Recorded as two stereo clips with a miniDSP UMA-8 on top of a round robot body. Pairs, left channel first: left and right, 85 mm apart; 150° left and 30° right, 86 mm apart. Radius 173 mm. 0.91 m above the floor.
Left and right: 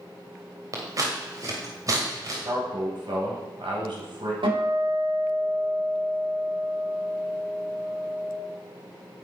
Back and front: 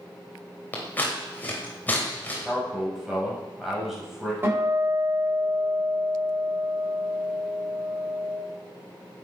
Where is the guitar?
95° right, 5 m.